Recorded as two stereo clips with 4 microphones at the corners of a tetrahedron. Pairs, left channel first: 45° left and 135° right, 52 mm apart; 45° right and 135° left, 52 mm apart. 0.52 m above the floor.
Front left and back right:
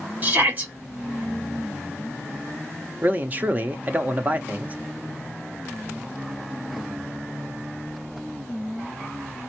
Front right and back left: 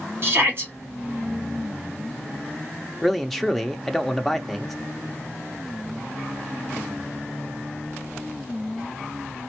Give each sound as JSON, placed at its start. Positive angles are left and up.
{"t": 0.2, "sound": "a shout", "azimuth_deg": 170, "distance_m": 2.5}
{"t": 3.0, "sound": "a man speaking", "azimuth_deg": -130, "distance_m": 0.7}